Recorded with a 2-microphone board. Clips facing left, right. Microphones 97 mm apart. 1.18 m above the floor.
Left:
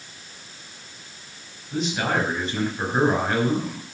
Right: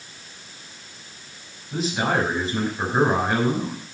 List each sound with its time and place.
1.7 s a man speaking: 5° right (ahead or behind), 6 m